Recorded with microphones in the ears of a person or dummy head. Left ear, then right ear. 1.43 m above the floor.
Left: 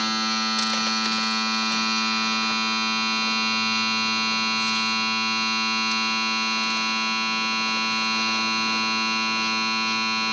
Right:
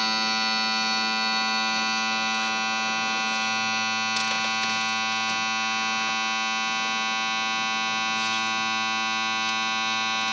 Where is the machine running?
30° right (ahead or behind), 1.2 m.